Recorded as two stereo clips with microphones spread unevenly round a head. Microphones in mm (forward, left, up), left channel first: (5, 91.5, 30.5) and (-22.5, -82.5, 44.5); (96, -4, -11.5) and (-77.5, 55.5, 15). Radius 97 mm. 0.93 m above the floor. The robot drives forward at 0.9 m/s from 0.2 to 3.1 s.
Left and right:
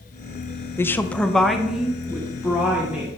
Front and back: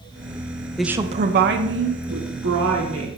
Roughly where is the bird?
I don't hear a bird.